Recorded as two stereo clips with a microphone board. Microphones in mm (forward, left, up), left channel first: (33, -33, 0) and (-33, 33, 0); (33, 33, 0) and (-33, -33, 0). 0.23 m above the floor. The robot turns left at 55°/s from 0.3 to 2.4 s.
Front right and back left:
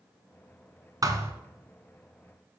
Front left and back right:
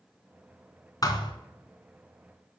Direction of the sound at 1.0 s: 90° left.